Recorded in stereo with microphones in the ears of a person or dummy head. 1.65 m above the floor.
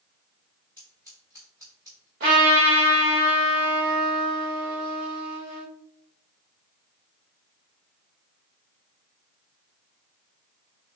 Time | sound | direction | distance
0.8 | scissors | 15° right (ahead or behind) | 0.9 m
2.2 | a trumpet | 45° right (ahead or behind) | 1.7 m